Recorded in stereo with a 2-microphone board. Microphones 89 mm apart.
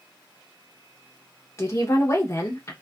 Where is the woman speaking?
35° left (ahead or behind), 0.8 m.